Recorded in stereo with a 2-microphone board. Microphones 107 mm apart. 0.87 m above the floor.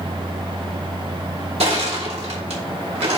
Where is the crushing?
70° right (ahead or behind), 2.5 m.